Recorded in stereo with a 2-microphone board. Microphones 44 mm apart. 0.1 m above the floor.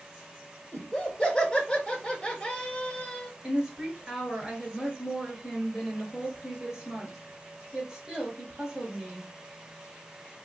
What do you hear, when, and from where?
0.7 s laughter: 10° left (ahead or behind), 1.5 m
3.4 s a woman speaking: 15° right (ahead or behind), 1.4 m